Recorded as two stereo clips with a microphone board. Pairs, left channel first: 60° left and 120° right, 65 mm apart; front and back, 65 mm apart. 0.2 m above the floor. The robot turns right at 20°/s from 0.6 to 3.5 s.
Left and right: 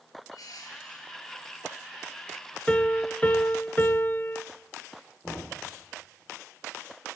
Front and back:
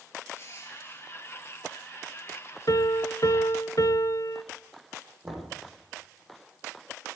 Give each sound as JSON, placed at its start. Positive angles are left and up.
{"t": 0.3, "sound": "crushing", "azimuth_deg": 45, "distance_m": 4.5}
{"t": 2.7, "sound": "a piano", "azimuth_deg": -10, "distance_m": 0.8}
{"t": 5.2, "sound": "knocking", "azimuth_deg": 110, "distance_m": 8.0}